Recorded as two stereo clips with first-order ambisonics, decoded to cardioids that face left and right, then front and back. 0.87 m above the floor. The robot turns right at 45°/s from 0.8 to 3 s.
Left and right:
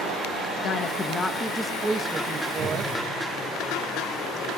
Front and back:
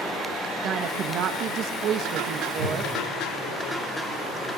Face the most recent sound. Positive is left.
turn(degrees=-140)